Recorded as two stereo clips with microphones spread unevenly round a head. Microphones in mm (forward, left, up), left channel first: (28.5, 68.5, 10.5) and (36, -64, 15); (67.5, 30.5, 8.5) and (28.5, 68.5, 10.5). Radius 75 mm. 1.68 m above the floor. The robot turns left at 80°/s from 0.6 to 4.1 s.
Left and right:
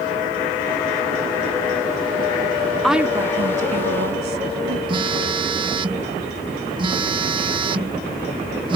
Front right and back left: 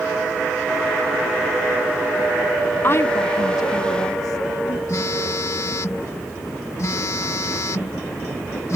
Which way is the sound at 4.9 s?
45° right.